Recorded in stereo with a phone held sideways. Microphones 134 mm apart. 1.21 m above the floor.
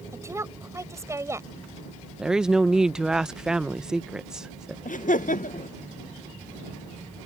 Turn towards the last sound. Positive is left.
turn(degrees=80)